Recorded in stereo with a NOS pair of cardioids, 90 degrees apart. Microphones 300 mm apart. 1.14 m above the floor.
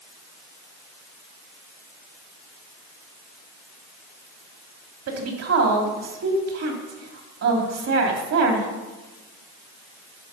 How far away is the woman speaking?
About 2.5 m.